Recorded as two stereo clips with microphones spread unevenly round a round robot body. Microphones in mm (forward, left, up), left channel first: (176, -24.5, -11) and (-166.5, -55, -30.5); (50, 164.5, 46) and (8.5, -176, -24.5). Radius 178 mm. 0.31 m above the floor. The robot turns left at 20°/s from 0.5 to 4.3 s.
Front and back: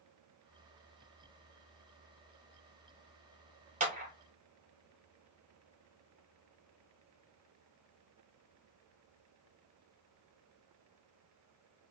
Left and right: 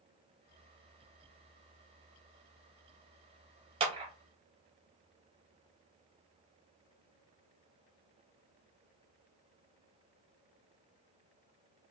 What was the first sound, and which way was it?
A clap, 130° right.